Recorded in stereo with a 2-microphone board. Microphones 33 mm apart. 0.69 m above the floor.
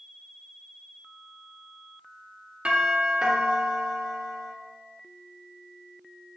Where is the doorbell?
40° right (ahead or behind), 2 m.